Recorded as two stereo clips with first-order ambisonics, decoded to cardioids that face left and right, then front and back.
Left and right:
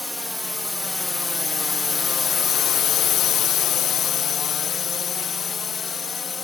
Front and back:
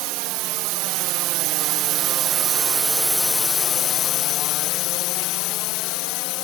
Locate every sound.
0.0 s a drone: 175° left; by 6.4 s 20° left